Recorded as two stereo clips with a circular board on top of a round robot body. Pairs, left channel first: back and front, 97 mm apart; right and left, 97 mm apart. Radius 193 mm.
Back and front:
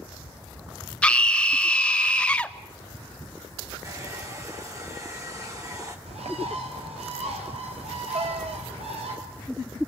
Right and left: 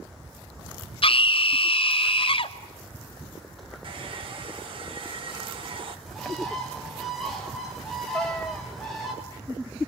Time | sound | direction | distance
1.0 | a scream | 100° right | 1.7 m
3.8 | a hair dryer | 60° left | 4 m
6.1 | a bird | straight ahead | 5.5 m
8.1 | a cat meowing | 10° right | 0.8 m